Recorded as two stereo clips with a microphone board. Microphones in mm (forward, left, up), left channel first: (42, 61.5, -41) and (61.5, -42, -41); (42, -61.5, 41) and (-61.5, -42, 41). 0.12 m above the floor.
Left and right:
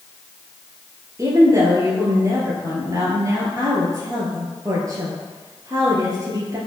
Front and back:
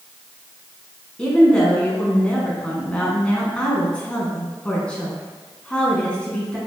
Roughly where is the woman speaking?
Right.